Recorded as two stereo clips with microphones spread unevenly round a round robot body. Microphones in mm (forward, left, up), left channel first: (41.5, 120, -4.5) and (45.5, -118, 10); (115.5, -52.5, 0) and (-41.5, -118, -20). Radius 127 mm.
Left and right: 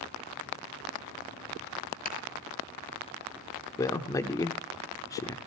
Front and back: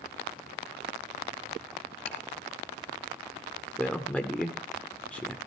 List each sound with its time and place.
2.0 s ticking: 40° left, 3 m
3.8 s a man speaking: 115° left, 0.7 m